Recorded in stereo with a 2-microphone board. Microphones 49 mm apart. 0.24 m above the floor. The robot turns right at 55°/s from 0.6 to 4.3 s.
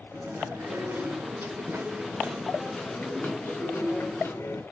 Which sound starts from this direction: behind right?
Chewing, at 0.1 s.